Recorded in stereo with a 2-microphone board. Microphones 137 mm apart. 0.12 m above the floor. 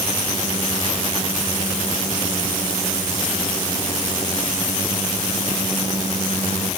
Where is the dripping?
I don't hear dripping.